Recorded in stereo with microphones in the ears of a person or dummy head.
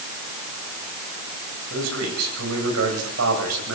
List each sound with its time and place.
1.7 s a man speaking: 85° right, 8.5 m